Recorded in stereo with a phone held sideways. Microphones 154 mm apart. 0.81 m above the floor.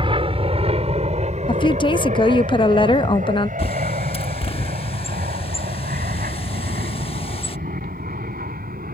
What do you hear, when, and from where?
0.0 s an aircraft: 35° right (ahead or behind); by 8.9 s 70° right (ahead or behind)
1.5 s a woman speaking: 30° left (ahead or behind)
3.6 s a bird: 40° left (ahead or behind)